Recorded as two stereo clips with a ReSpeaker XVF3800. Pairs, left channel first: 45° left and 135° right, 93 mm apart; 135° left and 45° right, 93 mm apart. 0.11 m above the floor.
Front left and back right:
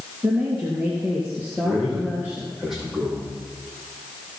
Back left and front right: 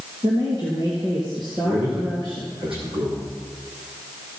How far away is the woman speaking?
About 2.5 m.